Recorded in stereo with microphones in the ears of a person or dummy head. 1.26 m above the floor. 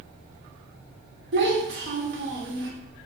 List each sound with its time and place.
1.3 s a child speaking: 65° right (ahead or behind), 1.4 m